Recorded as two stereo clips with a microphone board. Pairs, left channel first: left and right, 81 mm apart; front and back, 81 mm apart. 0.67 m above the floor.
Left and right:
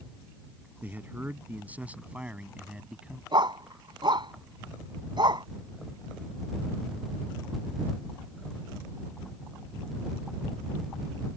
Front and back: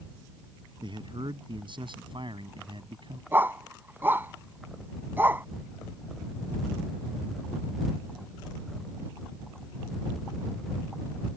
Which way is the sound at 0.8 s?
160° right.